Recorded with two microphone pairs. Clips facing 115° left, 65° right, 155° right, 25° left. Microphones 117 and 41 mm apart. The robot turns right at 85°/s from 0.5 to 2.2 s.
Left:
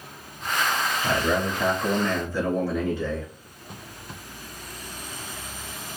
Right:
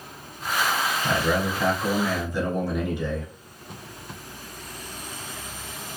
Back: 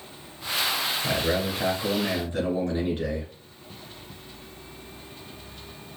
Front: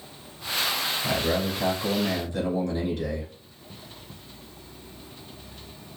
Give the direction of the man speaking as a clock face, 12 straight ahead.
7 o'clock.